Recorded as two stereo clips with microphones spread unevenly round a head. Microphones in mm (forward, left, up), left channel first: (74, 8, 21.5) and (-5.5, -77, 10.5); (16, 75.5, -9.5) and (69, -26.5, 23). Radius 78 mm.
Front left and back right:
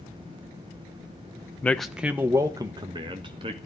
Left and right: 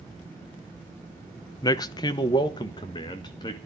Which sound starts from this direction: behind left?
A man speaking, at 1.6 s.